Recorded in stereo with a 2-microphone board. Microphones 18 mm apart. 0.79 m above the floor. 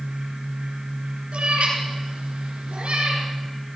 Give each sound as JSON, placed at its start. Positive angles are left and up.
{"t": 1.3, "sound": "a cat meowing", "side_deg": -80, "distance_m": 4.0}